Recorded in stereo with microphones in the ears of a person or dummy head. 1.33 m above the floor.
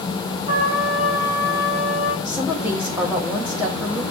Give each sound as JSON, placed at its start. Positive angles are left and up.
{"t": 0.5, "sound": "a trumpet", "side_deg": -20, "distance_m": 2.5}
{"t": 2.2, "sound": "a woman speaking", "side_deg": -5, "distance_m": 1.5}